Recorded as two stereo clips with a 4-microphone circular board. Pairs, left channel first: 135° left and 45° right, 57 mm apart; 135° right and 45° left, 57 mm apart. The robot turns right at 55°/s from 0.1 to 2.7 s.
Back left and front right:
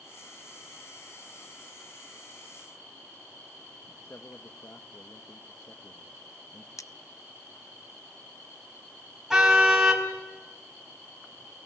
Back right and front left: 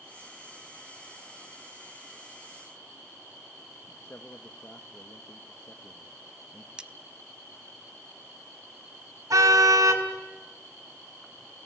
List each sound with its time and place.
4.0 s a man speaking: 175° left, 1.0 m
6.8 s cutlery clinking: 115° left, 0.7 m
9.3 s a car horn: 35° left, 3.5 m